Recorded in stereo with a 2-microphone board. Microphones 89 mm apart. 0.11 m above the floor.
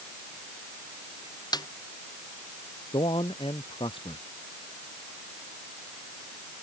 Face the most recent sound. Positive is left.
turn(degrees=75)  # may be behind; listen again after turning